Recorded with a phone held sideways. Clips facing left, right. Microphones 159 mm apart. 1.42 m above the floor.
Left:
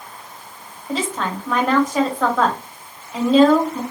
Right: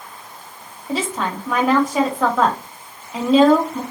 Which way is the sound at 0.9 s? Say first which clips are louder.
Right 1 dB; 5° right (ahead or behind).